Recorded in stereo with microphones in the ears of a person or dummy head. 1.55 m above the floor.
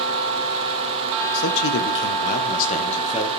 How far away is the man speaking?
About 1.0 m.